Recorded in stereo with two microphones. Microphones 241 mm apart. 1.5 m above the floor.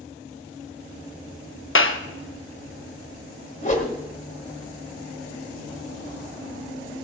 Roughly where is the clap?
Left.